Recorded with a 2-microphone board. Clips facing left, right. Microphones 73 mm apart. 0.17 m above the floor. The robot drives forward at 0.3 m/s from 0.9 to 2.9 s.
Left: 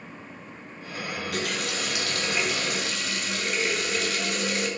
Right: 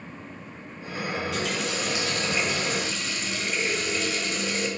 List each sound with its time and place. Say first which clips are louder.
1.2 s a running tap: right 1 dB; 55° left (ahead or behind), 1.8 m; by 4.7 s 60° left (ahead or behind), 1.7 m